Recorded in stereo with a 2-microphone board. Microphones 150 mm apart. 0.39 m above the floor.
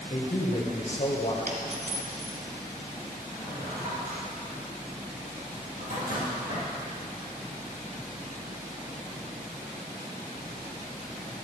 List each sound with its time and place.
0.1 s a man speaking: 50° left (ahead or behind), 1.7 m
1.5 s a dropped coin: 75° right (ahead or behind), 1.3 m
3.3 s a drawer: 70° right (ahead or behind), 3.5 m